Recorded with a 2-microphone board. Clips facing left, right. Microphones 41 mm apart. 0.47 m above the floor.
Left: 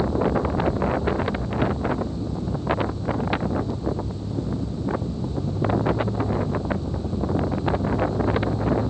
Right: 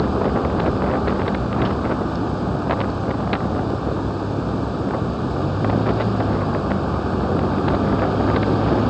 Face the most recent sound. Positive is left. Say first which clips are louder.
# right 3 dB
turn(degrees=-75)  # may be behind; listen again after turning